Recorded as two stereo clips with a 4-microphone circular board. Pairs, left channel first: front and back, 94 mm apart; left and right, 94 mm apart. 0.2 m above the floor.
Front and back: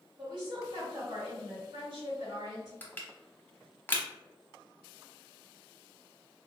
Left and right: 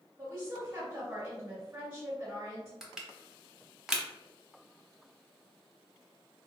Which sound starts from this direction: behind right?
A woman speaking, at 0.2 s.